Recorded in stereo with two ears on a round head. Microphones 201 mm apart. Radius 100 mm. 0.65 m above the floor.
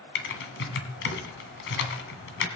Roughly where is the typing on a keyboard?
Left.